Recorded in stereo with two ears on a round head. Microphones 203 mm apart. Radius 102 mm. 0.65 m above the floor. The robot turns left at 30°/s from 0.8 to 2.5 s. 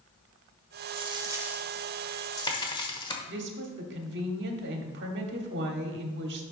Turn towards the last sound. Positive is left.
turn(degrees=-55)  # may be behind; listen again after turning